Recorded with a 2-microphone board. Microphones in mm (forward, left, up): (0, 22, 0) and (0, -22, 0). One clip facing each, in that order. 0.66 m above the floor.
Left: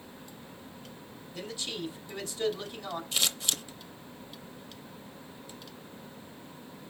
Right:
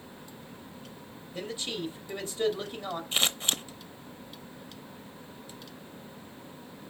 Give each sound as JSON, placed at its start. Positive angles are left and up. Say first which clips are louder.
{"t": 1.3, "sound": "a man speaking", "louder": "right 2 dB", "side_deg": -25, "distance_m": 2.5}
{"t": 3.1, "sound": "scissors", "louder": "right 4 dB", "side_deg": -35, "distance_m": 0.7}